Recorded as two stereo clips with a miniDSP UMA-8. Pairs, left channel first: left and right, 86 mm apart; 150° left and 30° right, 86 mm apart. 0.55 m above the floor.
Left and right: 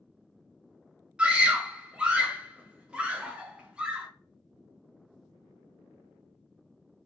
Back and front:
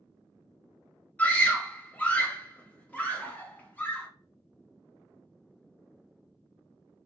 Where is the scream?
155° right, 0.7 m.